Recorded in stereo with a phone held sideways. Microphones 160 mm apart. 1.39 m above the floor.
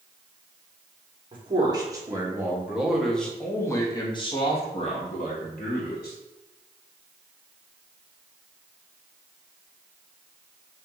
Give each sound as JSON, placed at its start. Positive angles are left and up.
{"t": 1.3, "sound": "a man speaking", "side_deg": -30, "distance_m": 1.6}